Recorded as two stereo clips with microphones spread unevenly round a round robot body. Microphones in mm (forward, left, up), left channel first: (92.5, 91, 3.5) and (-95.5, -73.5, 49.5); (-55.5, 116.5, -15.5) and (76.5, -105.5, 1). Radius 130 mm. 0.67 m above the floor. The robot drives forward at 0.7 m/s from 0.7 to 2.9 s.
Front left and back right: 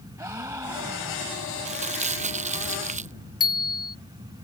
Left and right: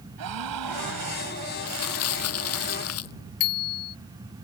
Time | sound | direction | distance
0.2 | a gasp | 60° right | ?
1.6 | crumpling | 155° left | ?
3.4 | a bicycle bell | 115° left | ?